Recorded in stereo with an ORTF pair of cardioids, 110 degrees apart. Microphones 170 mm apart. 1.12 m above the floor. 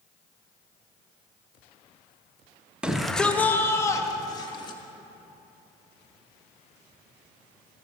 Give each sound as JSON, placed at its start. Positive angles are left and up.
{"t": 2.8, "sound": "a shout", "azimuth_deg": -5, "distance_m": 0.9}